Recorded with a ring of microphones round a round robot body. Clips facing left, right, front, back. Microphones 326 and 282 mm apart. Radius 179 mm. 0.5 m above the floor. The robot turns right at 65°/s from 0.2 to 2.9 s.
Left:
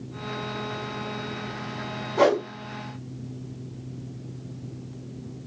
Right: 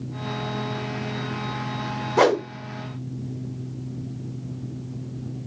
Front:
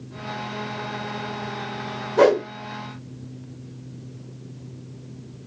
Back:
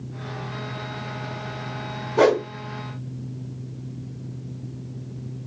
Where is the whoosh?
95° right, 1.1 m; by 2.4 s 80° right, 1.1 m.